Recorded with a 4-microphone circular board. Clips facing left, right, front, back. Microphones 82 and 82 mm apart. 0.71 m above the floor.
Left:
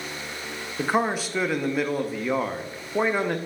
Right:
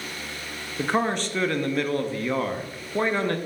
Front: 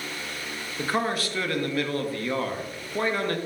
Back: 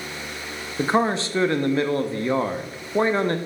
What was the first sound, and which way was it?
A man speaking, 165° left.